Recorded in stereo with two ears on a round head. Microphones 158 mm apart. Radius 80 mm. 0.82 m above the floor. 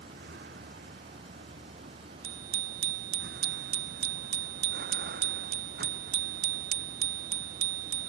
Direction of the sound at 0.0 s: 55° right (ahead or behind).